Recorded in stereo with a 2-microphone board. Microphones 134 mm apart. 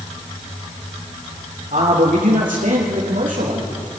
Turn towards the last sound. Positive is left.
turn(degrees=-75)  # may be behind; listen again after turning